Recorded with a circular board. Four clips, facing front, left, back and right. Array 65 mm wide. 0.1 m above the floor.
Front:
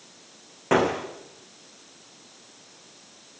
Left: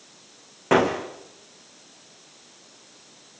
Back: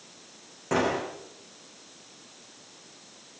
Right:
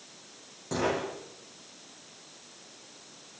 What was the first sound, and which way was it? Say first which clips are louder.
A gunshot: left 10 dB, front 4 dB; 65° left.